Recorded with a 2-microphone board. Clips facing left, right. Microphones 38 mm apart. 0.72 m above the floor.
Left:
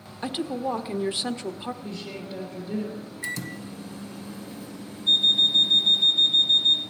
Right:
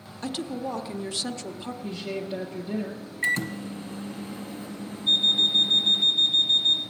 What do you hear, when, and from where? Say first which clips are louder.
0.2 s a woman speaking: left 3 dB; 20° left (ahead or behind), 0.8 m
1.8 s a woman speaking: right 3 dB; 45° right (ahead or behind), 1.7 m
3.2 s a microwave: right 8 dB; 40° right (ahead or behind), 0.9 m
5.1 s an alarm clock: left 2 dB; 5° right (ahead or behind), 1.6 m